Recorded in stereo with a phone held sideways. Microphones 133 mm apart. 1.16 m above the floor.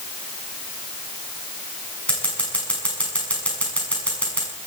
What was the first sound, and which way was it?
Scissors, 10° left (ahead or behind).